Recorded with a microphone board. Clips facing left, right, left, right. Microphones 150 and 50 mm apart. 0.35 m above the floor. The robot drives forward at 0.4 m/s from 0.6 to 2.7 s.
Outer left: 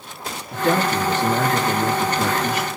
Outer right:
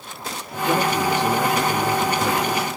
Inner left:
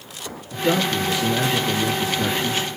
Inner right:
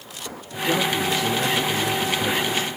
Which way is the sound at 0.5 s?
65° left (ahead or behind).